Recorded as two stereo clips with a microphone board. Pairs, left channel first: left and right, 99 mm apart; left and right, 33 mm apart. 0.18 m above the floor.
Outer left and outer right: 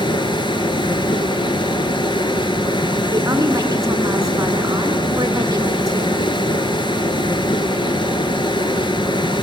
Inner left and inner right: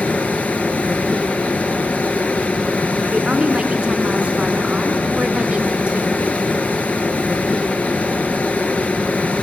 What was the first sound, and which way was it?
Running water, 55° left (ahead or behind).